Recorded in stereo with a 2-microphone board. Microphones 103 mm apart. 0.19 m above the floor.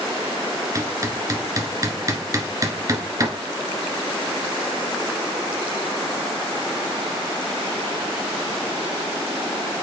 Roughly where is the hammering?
Right.